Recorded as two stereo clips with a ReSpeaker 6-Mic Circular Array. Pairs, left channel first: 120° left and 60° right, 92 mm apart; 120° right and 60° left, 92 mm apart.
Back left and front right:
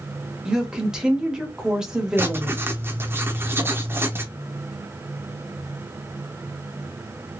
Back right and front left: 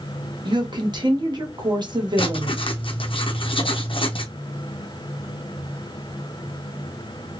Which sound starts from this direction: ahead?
A woman speaking, at 0.5 s.